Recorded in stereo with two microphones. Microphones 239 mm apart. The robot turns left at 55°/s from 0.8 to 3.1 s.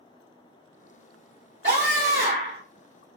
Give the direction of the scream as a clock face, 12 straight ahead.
2 o'clock.